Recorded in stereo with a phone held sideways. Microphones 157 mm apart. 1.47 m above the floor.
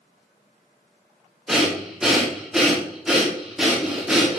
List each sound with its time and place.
1.5 s breathing: centre (ahead or behind), 0.7 m